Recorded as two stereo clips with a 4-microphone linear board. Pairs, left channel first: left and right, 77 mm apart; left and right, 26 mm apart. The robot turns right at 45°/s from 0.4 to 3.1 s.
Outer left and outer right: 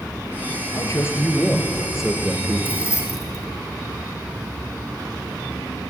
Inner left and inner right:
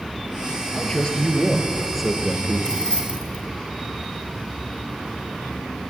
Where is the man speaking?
125° left, 4 m; by 2.8 s 140° right, 4 m.